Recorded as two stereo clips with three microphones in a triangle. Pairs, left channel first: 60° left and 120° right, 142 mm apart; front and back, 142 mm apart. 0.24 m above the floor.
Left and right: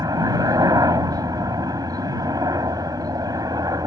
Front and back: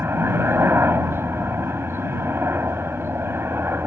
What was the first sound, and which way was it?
A helicopter, 130° right.